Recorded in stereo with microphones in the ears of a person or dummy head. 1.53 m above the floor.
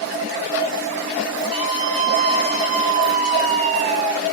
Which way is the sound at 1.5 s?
35° right (ahead or behind).